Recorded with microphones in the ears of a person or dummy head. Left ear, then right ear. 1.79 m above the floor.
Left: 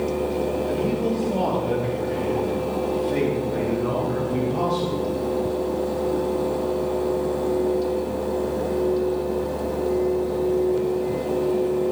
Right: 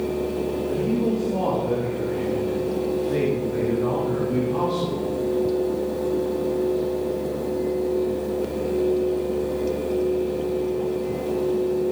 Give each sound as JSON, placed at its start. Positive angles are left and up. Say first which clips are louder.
{"t": 0.7, "sound": "a man speaking", "louder": "even", "side_deg": 20, "distance_m": 5.0}